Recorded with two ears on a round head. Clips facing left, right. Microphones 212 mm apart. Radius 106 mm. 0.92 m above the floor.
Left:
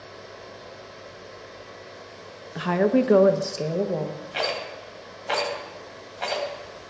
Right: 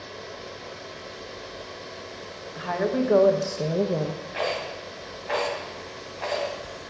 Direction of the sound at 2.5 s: 65° left (ahead or behind).